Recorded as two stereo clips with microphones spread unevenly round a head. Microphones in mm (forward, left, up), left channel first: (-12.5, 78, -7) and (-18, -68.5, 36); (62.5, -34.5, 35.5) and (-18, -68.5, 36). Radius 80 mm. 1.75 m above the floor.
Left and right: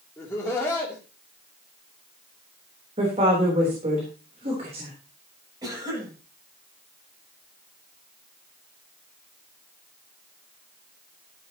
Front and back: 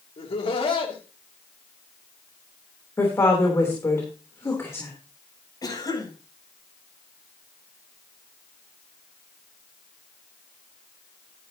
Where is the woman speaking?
35° right, 3.5 m.